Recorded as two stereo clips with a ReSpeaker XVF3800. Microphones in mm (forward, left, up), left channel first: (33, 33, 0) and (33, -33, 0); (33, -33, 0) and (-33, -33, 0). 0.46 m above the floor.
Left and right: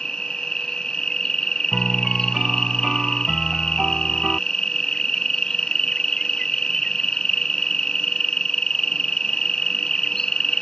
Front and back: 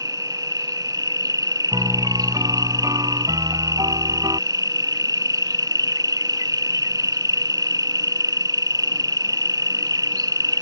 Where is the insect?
170° left.